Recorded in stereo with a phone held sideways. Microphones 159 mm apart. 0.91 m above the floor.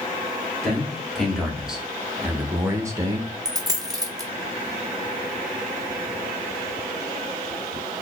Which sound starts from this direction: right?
A dropped coin, at 3.5 s.